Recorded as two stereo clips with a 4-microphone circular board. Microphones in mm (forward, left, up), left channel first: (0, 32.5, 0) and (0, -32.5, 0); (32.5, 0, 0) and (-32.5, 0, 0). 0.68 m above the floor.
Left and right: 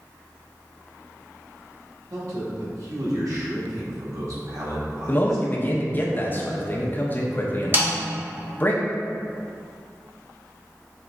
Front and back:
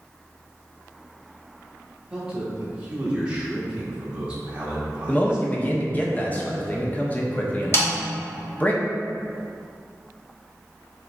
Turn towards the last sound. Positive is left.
turn(degrees=-40)